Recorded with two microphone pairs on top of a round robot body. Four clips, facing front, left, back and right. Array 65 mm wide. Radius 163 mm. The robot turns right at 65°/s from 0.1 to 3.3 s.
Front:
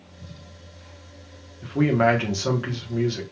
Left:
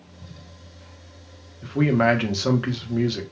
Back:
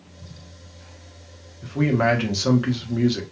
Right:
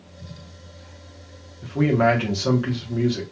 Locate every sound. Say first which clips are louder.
1.6 s a man speaking: even, front 1 dB; 50° left, 1.0 m; by 3.2 s 155° left, 1.0 m